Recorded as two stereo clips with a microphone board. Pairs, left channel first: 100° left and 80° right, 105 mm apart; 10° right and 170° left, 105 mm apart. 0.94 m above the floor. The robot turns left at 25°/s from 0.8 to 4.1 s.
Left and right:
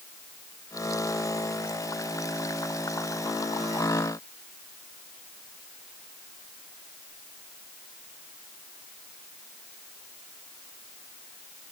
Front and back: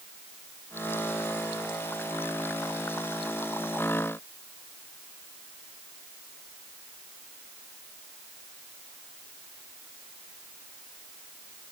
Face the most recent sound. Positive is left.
No sound to turn to.